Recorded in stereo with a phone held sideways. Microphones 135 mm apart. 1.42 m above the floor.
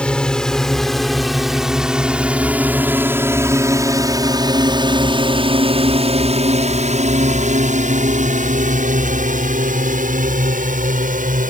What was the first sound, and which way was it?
A drone, 10° left (ahead or behind).